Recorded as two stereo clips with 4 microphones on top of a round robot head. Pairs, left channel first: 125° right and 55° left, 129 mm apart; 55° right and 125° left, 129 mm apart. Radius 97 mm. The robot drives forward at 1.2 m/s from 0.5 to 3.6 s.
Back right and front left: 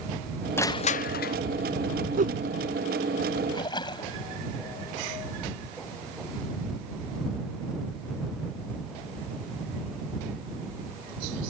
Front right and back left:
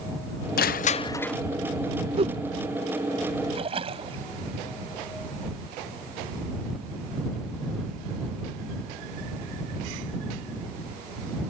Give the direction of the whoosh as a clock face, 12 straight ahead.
9 o'clock.